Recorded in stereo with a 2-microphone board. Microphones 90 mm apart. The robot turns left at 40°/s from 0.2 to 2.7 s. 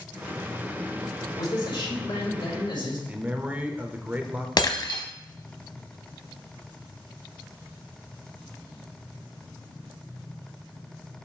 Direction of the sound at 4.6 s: 55° left (ahead or behind).